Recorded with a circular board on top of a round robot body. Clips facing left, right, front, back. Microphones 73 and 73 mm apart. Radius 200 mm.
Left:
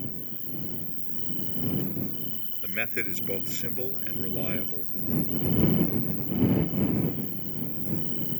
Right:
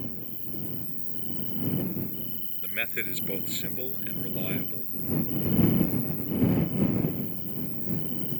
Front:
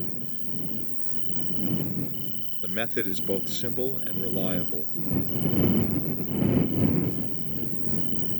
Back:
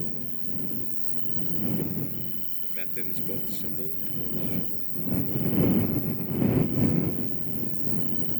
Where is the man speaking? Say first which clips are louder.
Left 2 dB, front 12 dB; 10° left.